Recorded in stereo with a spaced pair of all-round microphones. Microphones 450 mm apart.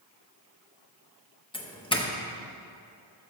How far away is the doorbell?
About 0.9 m.